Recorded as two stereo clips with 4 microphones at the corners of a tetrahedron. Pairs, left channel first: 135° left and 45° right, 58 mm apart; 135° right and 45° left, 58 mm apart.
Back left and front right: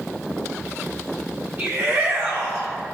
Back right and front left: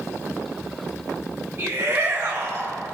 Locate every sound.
1.6 s a shout: 10° left, 2 m